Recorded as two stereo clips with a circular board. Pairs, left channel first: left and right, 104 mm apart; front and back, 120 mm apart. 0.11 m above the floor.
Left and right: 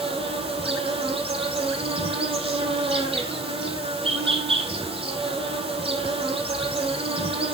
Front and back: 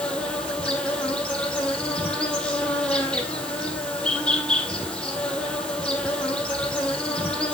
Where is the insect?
80° right, 5 m.